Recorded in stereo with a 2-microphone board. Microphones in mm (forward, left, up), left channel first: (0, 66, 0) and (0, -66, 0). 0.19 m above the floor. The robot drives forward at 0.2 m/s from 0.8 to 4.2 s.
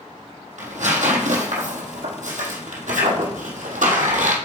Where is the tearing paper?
70° right (ahead or behind), 1.8 m; by 4.4 s 80° right, 1.7 m.